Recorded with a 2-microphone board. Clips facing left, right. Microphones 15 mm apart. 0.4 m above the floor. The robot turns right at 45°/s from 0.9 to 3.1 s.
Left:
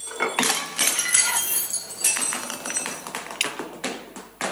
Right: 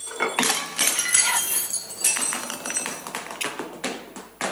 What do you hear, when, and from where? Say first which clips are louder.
1.2 s whispering: right 1 dB; 20° right (ahead or behind), 0.8 m; by 1.7 s 15° right (ahead or behind), 0.8 m
3.4 s dripping: left 4 dB; 55° left (ahead or behind), 1.4 m